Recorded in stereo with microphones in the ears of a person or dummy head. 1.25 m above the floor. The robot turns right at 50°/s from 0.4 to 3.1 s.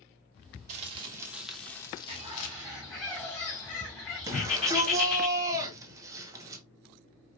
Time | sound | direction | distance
0.7 | crumpling | 45° right | 0.8 m
2.1 | a bird | 45° right | 1.9 m
4.3 | a shout | 20° right (ahead or behind) | 1.0 m